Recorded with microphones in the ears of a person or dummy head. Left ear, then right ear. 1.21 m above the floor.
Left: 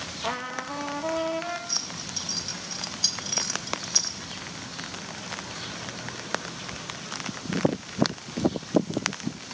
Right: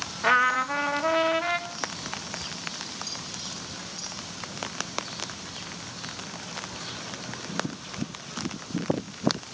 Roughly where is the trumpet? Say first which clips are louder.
Right 11 dB; right.